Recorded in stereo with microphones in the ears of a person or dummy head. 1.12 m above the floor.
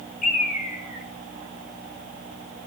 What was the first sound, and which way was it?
A bird, 45° left (ahead or behind).